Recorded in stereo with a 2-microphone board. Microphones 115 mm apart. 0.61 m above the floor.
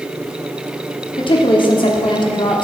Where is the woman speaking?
50° left (ahead or behind), 0.9 m.